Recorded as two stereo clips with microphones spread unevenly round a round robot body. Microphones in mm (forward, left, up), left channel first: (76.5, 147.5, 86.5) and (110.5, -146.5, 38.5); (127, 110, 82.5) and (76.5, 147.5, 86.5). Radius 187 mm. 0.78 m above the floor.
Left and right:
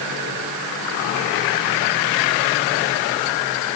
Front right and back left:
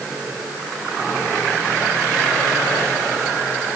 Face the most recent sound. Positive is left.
No sound to turn to.